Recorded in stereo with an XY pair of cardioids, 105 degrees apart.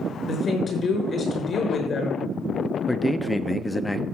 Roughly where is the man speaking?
Ahead.